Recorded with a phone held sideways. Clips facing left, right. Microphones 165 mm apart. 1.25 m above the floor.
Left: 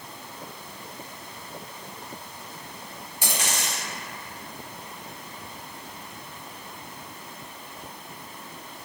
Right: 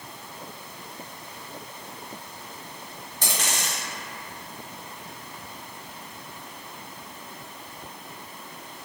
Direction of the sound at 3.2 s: 10° left (ahead or behind).